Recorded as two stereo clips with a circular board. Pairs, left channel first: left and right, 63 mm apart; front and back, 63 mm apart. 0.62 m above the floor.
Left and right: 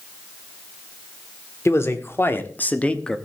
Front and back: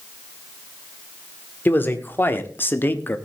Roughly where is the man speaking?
Ahead left.